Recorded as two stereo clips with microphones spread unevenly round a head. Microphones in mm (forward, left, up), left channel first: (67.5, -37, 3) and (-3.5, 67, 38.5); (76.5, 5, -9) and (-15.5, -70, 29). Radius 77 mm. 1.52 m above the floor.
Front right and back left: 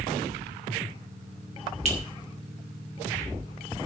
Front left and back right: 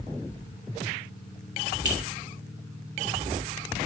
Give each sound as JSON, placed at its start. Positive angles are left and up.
{"t": 1.9, "sound": "a clink", "azimuth_deg": 165, "distance_m": 2.5}